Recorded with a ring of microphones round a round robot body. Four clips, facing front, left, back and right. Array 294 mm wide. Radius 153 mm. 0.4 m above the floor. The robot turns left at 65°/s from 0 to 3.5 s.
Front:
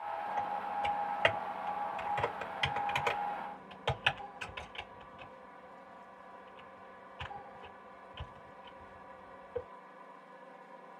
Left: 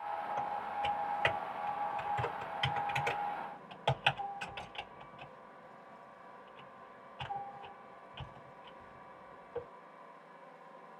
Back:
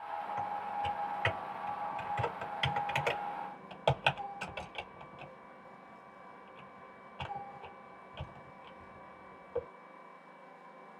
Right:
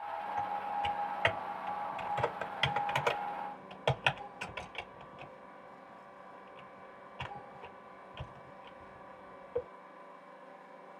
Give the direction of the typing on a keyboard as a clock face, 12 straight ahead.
10 o'clock.